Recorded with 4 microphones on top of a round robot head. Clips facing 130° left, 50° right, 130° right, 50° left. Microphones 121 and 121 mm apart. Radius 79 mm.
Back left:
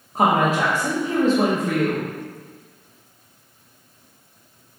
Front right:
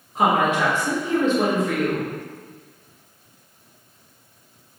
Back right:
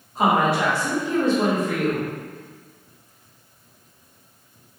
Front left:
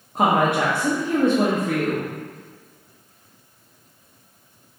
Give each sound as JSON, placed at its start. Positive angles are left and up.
{"t": 0.1, "sound": "a woman speaking", "azimuth_deg": 80, "distance_m": 0.8}